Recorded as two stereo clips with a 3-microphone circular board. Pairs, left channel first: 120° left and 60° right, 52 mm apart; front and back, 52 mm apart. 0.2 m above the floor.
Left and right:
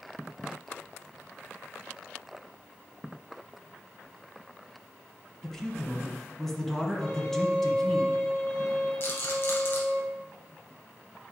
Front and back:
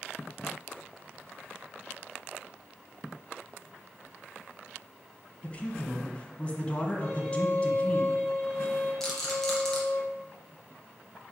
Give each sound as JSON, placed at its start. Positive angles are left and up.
{"t": 5.4, "sound": "a man speaking", "azimuth_deg": 40, "distance_m": 1.1}
{"t": 7.0, "sound": "a violin", "azimuth_deg": 50, "distance_m": 2.0}
{"t": 9.0, "sound": "a rattle", "azimuth_deg": 80, "distance_m": 1.8}